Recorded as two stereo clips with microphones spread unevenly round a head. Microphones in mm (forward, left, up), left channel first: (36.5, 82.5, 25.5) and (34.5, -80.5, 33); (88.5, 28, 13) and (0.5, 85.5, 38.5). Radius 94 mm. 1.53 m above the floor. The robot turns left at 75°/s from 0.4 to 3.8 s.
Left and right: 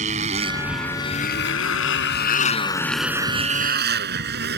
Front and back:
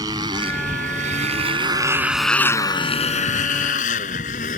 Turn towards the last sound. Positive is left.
turn(degrees=-70)